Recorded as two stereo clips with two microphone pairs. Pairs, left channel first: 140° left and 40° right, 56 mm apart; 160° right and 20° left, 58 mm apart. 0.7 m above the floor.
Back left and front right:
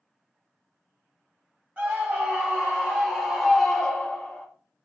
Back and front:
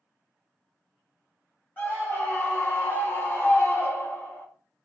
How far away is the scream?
About 1.9 m.